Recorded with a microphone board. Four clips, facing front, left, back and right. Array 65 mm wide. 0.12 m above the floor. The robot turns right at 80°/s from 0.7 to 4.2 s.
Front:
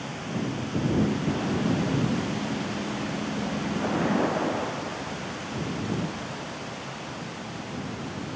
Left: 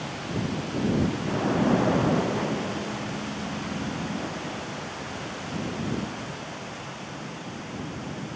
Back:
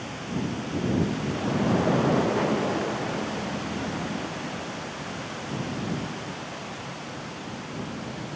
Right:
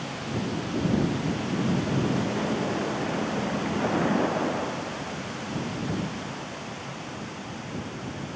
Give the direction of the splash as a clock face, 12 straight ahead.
9 o'clock.